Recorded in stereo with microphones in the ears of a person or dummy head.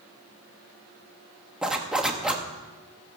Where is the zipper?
5° right (ahead or behind), 1.3 m.